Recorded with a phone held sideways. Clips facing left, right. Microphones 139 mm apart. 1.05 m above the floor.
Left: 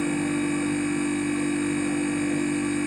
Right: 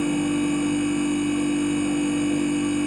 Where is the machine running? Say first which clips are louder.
Right 3 dB; 15° right (ahead or behind), 1.3 m.